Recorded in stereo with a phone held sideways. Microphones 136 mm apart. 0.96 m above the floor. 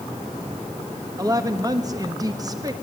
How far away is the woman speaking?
About 1.3 m.